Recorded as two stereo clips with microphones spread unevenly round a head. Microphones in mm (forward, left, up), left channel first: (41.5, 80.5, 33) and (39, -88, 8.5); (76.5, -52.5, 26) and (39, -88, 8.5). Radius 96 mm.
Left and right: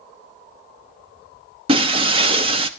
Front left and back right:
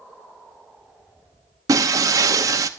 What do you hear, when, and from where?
1.7 s breaking glass: 155° right, 0.8 m